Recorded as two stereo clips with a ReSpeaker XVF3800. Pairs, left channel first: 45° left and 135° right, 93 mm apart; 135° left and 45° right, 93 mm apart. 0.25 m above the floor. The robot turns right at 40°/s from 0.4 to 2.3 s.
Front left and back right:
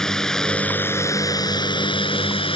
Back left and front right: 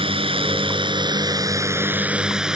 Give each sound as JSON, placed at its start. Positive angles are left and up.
{"t": 0.0, "sound": "a drone", "azimuth_deg": -40}